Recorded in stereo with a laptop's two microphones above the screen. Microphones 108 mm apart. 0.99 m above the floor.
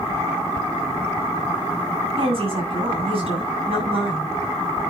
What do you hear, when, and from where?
2.2 s a woman speaking: 50° right (ahead or behind), 6.5 m